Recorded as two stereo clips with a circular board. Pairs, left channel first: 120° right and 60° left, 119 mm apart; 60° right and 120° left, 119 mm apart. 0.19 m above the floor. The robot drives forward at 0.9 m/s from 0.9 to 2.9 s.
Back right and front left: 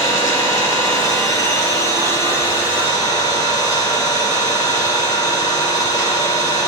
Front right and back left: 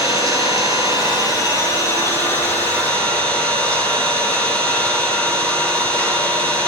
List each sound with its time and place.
0.0 s an engine running: straight behind, 2.5 m